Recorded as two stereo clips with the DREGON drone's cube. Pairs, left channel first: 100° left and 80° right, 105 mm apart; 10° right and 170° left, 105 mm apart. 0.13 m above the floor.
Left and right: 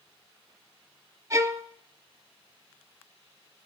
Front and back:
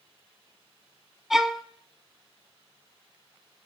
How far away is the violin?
About 0.7 m.